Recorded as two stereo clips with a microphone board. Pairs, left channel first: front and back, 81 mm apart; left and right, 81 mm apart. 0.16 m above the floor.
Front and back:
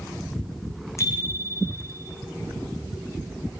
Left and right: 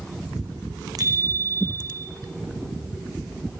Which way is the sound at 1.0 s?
55° right.